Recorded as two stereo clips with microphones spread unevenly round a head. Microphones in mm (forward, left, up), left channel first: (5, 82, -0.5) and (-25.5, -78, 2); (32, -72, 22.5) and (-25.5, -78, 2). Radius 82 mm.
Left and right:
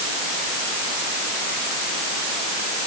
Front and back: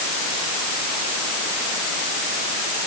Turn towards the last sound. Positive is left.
No sound to turn to.